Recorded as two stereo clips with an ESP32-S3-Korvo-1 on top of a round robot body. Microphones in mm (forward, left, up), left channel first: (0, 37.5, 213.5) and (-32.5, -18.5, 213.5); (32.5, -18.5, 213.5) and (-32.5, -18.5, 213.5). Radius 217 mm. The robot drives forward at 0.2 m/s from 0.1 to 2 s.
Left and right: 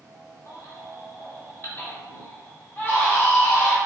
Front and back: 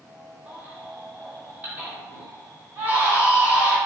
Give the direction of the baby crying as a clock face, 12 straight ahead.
8 o'clock.